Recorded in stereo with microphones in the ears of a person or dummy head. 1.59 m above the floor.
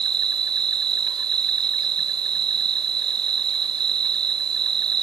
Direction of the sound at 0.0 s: 25° right (ahead or behind).